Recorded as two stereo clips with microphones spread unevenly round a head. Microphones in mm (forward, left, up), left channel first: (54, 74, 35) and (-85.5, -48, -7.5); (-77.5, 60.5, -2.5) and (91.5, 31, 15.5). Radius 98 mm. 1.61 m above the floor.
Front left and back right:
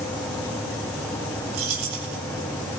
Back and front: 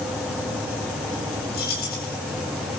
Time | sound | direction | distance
1.5 | keys jangling | 145° right | 7.5 m